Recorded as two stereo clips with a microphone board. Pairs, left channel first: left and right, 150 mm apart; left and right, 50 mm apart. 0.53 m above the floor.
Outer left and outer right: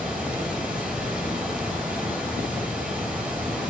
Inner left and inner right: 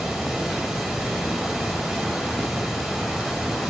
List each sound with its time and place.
0.0 s running water: 10° right (ahead or behind), 7.5 m